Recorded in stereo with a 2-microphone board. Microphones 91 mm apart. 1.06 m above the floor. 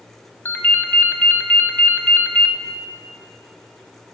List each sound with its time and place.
0.5 s a ringtone: 20° left (ahead or behind), 0.7 m